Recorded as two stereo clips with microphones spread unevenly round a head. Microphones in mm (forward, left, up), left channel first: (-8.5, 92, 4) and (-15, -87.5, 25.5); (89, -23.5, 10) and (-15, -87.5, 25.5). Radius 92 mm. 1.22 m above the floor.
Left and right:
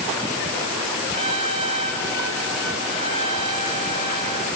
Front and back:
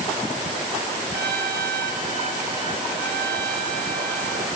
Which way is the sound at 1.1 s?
155° right.